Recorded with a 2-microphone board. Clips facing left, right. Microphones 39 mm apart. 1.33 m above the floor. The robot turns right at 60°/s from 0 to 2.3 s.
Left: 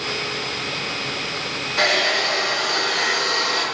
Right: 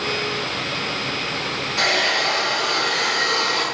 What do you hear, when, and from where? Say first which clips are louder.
1.8 s a hair dryer: left 1 dB; 175° left, 3 m; by 3.6 s 155° right, 3 m